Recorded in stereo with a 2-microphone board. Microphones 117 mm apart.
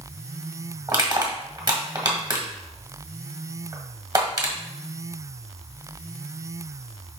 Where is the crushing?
35° right (ahead or behind), 1.7 m.